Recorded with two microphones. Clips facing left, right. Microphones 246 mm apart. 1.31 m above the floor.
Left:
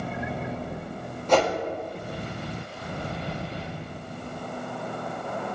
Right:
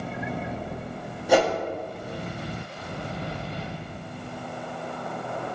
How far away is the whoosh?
About 0.8 m.